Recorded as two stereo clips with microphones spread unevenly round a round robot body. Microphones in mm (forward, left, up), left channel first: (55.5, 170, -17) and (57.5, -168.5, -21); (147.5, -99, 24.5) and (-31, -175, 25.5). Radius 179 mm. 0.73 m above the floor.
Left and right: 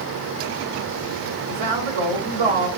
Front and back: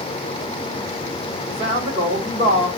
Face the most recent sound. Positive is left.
turn(degrees=-95)